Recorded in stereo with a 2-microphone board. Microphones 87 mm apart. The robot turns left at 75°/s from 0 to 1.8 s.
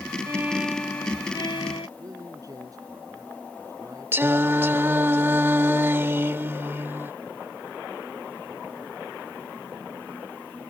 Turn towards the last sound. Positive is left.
turn(degrees=-25)  # may be behind; listen again after turning